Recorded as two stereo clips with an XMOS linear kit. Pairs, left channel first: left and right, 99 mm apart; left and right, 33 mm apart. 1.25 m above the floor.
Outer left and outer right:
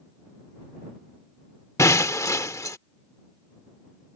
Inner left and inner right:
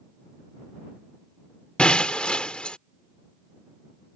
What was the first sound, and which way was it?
Breaking glass, 30° left (ahead or behind).